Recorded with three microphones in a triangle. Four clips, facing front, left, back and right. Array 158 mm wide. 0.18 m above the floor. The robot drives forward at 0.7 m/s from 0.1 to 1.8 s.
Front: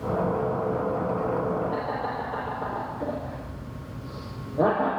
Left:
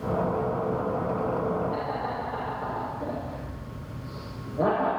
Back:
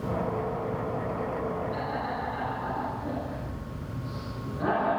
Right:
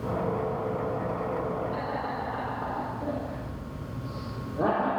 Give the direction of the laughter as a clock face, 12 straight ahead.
12 o'clock.